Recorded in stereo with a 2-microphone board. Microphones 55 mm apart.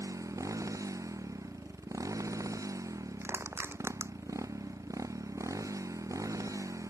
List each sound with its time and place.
0.0 s a motorcycle: 80° right
3.2 s crushing: 50° right (ahead or behind)